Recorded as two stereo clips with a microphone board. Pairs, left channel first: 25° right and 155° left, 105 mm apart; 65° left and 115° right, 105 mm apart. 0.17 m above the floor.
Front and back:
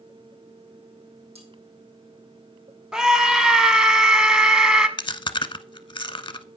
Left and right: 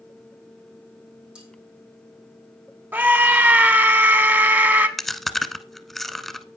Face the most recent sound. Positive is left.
turn(degrees=-20)